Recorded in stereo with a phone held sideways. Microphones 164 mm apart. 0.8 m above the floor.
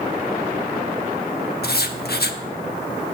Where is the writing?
75° left (ahead or behind), 1.0 m.